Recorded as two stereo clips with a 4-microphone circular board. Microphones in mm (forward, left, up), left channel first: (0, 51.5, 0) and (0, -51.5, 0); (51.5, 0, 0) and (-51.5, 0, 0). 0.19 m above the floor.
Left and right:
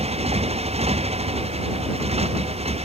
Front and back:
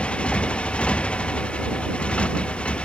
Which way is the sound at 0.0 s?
80° right.